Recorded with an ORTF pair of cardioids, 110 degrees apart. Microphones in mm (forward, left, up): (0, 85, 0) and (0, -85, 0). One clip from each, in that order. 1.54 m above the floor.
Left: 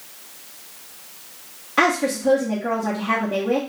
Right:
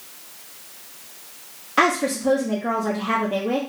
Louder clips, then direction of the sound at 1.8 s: Even; 5° right.